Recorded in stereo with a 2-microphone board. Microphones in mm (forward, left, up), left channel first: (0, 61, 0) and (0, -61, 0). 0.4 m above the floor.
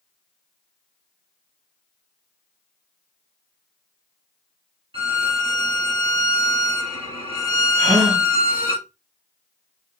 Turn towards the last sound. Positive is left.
turn(degrees=-65)  # may be behind; listen again after turning